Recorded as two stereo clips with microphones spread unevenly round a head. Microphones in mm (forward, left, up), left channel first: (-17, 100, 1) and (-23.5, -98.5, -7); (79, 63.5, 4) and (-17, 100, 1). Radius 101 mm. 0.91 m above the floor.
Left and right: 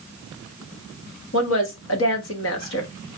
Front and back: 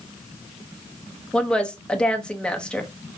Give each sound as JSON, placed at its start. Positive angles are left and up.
{"t": 1.3, "sound": "a woman speaking", "azimuth_deg": 60, "distance_m": 1.1}